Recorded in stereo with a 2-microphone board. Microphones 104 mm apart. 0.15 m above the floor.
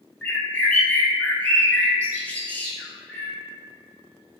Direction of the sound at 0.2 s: 15° left (ahead or behind).